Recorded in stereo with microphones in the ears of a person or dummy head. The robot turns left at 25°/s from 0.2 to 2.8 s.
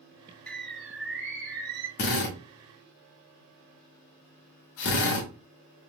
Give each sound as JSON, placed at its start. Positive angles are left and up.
{"t": 0.5, "sound": "a bird", "azimuth_deg": 10, "distance_m": 0.7}
{"t": 2.0, "sound": "a drill", "side_deg": 40, "distance_m": 1.0}